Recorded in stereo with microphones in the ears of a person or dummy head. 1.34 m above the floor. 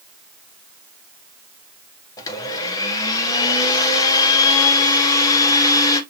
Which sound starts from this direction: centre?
A blender, at 2.2 s.